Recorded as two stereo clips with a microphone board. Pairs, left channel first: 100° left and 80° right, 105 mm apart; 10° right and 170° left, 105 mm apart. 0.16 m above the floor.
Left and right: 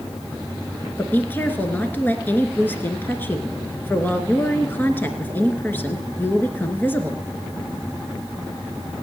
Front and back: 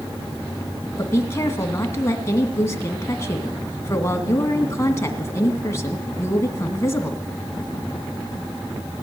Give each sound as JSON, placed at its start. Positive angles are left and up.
{"t": 1.0, "sound": "a woman speaking", "azimuth_deg": 40, "distance_m": 2.0}